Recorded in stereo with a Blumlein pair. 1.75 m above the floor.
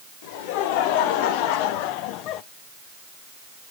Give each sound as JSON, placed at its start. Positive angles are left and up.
{"t": 0.2, "sound": "laughter", "azimuth_deg": 50, "distance_m": 2.0}